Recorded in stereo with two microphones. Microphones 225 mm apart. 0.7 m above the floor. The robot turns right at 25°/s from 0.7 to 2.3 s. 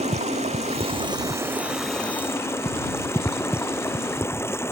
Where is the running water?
30° right; by 4.7 s 10° left.